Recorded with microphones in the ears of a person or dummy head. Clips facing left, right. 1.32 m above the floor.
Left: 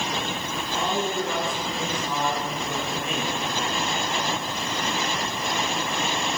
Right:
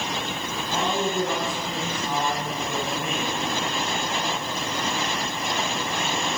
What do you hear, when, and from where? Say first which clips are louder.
0.7 s a man speaking: right 2 dB; 50° right (ahead or behind), 8 m